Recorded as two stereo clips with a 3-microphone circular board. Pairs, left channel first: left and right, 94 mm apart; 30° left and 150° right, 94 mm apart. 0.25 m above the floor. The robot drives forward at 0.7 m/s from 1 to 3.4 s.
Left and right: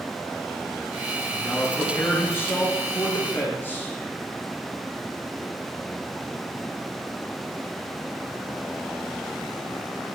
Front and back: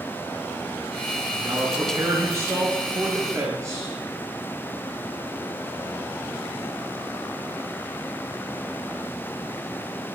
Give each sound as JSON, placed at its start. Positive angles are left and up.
{"t": 1.3, "sound": "a man speaking", "azimuth_deg": 150, "distance_m": 4.0}